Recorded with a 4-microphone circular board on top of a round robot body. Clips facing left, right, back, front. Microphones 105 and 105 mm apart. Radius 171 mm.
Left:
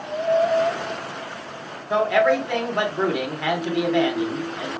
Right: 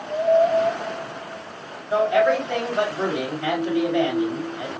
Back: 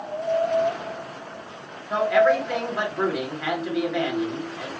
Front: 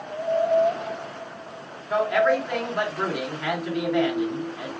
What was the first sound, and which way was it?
A man speaking, 90° left.